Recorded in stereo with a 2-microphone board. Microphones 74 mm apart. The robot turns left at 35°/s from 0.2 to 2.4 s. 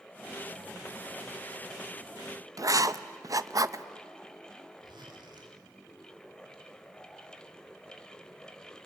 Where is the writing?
50° right (ahead or behind), 0.6 m.